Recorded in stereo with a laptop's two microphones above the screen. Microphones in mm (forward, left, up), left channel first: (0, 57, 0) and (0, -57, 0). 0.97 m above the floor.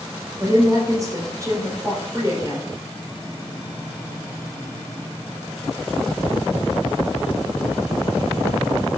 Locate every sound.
0.4 s a woman speaking: 30° right (ahead or behind), 4 m